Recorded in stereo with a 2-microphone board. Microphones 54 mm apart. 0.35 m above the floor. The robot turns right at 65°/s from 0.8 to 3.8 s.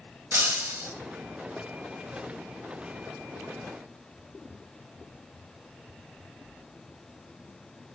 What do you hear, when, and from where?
0.3 s breaking glass: 45° right (ahead or behind), 0.9 m; by 0.9 s 40° right (ahead or behind), 0.9 m